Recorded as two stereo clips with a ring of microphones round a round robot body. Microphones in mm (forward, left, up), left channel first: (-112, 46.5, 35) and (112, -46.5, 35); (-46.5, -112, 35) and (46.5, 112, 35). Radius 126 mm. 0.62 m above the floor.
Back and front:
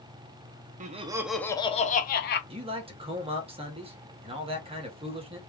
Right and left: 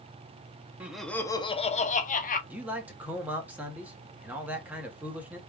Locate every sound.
0.8 s laughter: 10° right, 0.6 m; by 2.4 s 165° right, 0.9 m
2.5 s a man speaking: 5° right, 0.9 m